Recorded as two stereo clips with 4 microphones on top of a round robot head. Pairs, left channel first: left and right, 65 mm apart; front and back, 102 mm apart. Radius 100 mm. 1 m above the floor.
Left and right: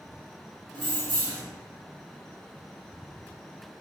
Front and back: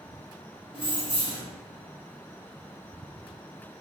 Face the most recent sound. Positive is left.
turn(degrees=-105)